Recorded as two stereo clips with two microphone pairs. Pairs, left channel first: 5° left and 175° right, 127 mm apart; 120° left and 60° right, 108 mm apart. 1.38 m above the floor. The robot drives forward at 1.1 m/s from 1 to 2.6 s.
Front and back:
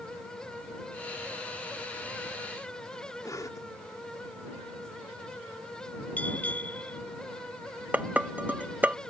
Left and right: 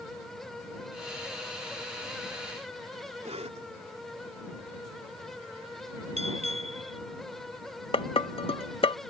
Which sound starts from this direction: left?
Dishes clattering, at 7.9 s.